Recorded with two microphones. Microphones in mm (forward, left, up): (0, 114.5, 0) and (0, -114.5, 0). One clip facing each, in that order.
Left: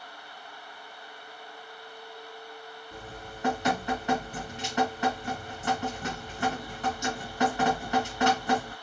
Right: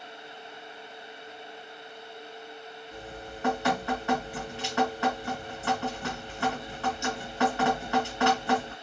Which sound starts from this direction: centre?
Dripping, at 2.9 s.